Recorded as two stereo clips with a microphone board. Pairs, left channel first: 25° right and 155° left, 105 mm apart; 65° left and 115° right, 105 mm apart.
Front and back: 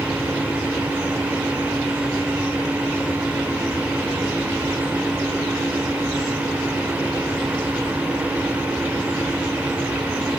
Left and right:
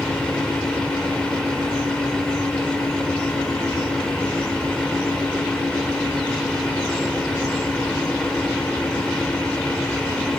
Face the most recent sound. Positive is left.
No sound to turn to.